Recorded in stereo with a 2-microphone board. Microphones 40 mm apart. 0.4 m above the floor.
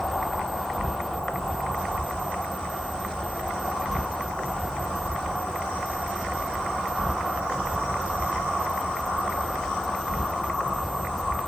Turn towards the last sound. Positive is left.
turn(degrees=10)  # may be behind; listen again after turning